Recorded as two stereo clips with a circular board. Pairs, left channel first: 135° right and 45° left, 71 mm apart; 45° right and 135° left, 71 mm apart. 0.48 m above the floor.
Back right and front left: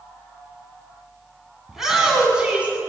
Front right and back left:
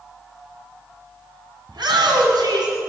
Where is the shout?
130° left, 5.5 m; by 2.8 s 115° left, 5.5 m.